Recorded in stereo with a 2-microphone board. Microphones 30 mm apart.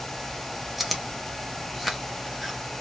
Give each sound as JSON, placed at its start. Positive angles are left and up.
{"t": 0.8, "sound": "chewing", "side_deg": 0, "distance_m": 1.1}